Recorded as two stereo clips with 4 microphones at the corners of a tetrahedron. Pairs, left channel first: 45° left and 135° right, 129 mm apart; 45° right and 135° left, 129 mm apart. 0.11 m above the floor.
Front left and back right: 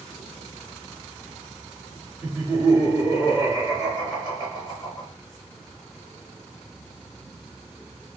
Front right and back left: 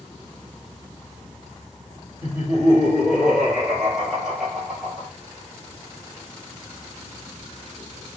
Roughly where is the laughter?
Ahead left.